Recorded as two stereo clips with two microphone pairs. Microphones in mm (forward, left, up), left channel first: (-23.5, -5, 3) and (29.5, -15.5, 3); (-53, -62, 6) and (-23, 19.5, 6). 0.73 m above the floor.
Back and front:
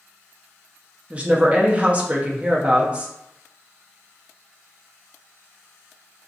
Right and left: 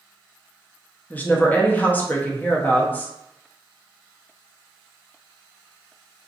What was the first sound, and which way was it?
A woman speaking, 60° right.